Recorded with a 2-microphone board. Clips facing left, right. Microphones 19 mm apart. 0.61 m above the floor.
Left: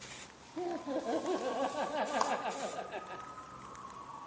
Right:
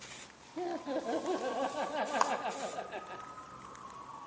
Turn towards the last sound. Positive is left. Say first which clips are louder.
# right 4 dB
turn(degrees=-50)  # may be behind; listen again after turning